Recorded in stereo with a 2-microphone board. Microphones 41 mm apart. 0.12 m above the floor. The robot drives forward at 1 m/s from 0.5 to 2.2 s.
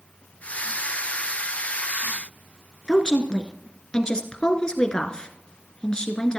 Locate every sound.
2.9 s a woman speaking: 20° left (ahead or behind), 1.4 m